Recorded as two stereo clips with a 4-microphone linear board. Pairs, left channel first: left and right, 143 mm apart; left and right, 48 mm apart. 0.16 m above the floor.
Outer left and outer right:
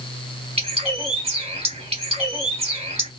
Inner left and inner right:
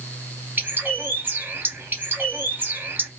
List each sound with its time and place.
0.6 s a bird: 40° right (ahead or behind), 1.2 m